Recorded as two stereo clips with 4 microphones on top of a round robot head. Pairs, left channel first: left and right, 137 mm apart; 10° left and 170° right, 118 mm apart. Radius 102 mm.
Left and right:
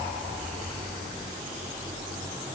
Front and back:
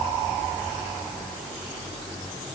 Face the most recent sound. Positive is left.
No sound to turn to.